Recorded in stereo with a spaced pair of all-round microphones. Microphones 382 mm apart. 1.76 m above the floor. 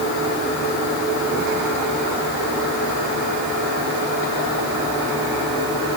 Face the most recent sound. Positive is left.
No sound to turn to.